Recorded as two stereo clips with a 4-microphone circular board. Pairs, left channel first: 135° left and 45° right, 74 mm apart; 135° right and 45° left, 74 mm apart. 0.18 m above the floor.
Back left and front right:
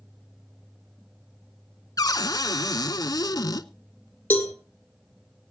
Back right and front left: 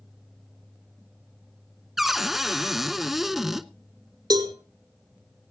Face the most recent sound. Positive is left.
turn(degrees=70)